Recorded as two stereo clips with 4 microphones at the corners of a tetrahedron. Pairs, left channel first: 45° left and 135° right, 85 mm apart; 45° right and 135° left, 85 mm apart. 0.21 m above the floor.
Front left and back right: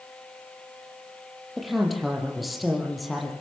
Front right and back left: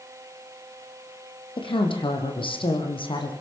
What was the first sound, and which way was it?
A woman speaking, 45° right.